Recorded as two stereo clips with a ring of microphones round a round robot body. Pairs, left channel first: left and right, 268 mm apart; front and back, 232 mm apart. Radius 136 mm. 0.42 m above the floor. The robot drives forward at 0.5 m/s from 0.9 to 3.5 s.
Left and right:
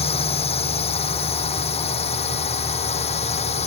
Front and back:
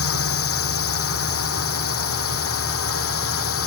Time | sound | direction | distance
0.0 | a drone | 20° left | ?